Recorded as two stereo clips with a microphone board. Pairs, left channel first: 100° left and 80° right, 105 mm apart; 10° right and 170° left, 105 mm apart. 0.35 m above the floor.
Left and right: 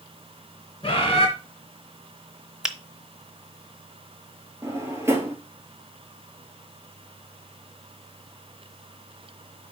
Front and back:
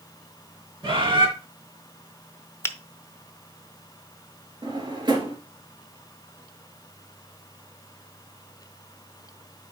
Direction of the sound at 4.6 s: 145° right.